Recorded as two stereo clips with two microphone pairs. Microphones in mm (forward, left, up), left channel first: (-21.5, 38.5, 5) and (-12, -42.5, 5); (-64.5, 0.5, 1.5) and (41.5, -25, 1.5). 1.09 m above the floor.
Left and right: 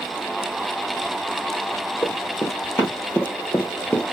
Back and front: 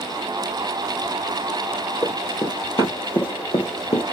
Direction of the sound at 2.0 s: 130° left.